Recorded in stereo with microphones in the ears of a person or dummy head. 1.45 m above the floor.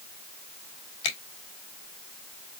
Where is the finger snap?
40° left (ahead or behind), 2.5 m.